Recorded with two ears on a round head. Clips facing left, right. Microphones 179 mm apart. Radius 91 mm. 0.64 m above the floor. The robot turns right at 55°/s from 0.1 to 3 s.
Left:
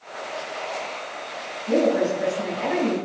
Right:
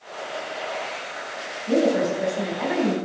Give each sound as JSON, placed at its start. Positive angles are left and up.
{"t": 1.7, "sound": "a woman speaking", "azimuth_deg": -175, "distance_m": 4.5}